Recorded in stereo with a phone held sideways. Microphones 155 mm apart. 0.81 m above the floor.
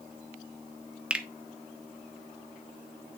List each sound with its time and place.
1.1 s a finger snap: 5° right (ahead or behind), 0.7 m